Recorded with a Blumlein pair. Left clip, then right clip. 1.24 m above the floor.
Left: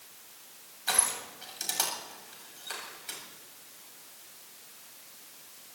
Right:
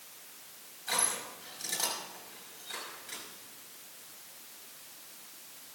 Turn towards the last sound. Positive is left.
turn(degrees=65)